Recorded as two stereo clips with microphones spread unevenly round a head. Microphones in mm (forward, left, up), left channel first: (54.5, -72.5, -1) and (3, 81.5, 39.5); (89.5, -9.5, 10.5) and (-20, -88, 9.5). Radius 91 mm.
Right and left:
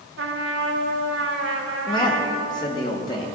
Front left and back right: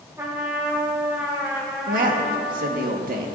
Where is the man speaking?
135° right, 1.7 m.